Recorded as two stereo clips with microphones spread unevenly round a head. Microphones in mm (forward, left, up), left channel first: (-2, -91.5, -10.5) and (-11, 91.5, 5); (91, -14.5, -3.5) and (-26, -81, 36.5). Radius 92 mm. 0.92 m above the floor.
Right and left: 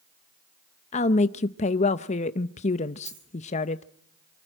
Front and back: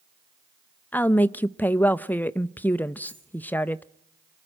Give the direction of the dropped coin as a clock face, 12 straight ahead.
8 o'clock.